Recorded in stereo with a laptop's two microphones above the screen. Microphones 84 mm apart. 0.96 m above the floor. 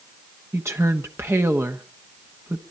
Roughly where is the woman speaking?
Right.